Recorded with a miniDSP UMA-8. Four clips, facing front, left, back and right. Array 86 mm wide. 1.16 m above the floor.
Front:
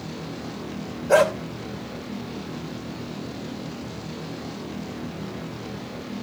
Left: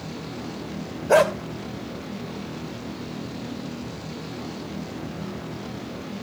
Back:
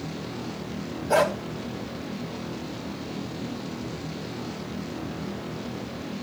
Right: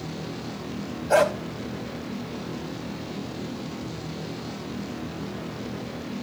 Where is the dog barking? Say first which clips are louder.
Left 2 dB, front 4 dB; 65° left, 2 m.